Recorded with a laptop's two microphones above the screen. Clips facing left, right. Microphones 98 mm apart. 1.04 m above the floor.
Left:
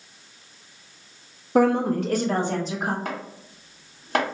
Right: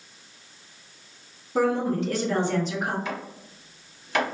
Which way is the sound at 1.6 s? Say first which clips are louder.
Left 4 dB; 60° left (ahead or behind).